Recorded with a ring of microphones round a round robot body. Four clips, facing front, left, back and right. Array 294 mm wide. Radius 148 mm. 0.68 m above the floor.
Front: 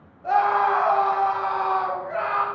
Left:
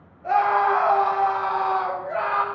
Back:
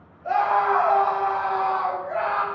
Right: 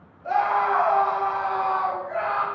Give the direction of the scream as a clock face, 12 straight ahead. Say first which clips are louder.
Left 2 dB, front 1 dB; 10 o'clock.